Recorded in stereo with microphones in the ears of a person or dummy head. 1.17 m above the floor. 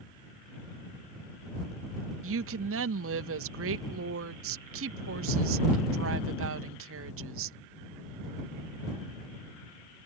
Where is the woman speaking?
65° right (ahead or behind).